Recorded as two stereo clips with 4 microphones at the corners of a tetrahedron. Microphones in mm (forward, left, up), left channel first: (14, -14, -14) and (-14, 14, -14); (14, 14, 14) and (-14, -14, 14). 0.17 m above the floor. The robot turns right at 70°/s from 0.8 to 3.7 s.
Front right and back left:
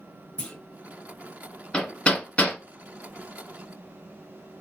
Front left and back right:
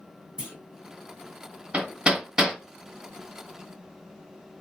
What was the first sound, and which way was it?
A clunk, 85° right.